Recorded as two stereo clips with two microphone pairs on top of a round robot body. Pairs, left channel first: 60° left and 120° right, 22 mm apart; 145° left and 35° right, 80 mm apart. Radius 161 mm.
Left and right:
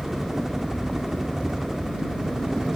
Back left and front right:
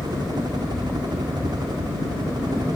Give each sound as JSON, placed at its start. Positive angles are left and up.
{"t": 0.0, "sound": "a helicopter", "azimuth_deg": -45}